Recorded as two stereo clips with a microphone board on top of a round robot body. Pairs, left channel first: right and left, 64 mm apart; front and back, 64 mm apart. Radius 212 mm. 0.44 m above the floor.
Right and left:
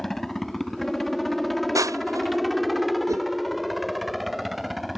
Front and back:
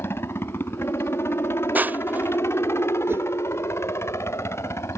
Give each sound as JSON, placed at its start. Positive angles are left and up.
{"t": 0.0, "sound": "a helicopter", "azimuth_deg": -5}
{"t": 1.8, "sound": "crushing", "azimuth_deg": 120}
{"t": 3.1, "sound": "a whoosh", "azimuth_deg": 125}